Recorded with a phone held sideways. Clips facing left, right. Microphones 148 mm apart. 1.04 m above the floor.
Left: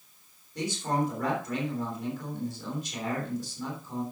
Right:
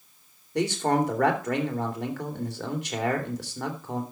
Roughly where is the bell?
I don't hear a bell.